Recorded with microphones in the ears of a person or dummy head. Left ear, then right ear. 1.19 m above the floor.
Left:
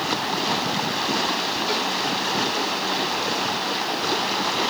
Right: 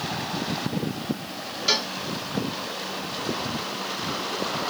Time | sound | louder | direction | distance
1.7 | a cowbell | right 5 dB | 45° right (ahead or behind) | ?